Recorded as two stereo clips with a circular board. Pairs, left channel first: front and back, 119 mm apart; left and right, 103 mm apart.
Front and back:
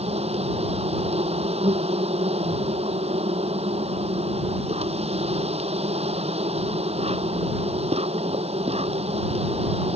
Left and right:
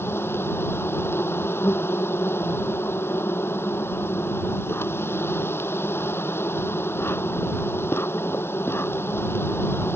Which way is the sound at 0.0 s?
155° left.